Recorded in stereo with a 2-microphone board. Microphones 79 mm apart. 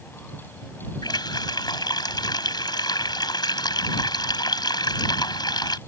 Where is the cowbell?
I don't hear a cowbell.